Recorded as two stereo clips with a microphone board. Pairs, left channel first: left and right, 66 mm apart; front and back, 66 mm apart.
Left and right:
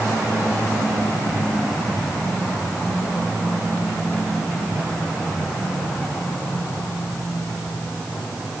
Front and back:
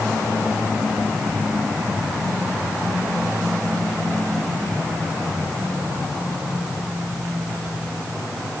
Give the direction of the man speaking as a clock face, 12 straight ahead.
No man speaking in this recording.